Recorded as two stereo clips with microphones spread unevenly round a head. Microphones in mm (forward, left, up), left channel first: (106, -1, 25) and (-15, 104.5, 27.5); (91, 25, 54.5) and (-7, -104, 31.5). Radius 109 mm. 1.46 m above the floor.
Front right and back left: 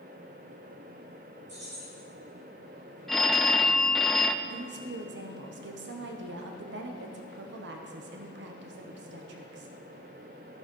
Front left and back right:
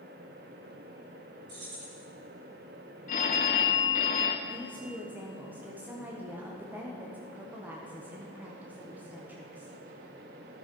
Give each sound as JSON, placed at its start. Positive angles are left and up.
{"t": 1.5, "sound": "keys jangling", "azimuth_deg": -165, "distance_m": 4.0}
{"t": 3.1, "sound": "a phone ringing", "azimuth_deg": 50, "distance_m": 0.7}
{"t": 4.5, "sound": "a woman speaking", "azimuth_deg": 150, "distance_m": 1.3}